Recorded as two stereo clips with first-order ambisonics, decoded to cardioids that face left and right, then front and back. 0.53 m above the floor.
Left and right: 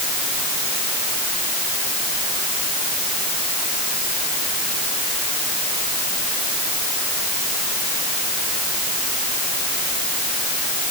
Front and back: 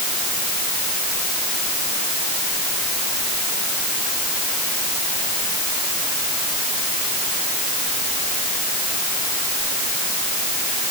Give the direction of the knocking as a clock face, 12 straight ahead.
No knocking in this recording.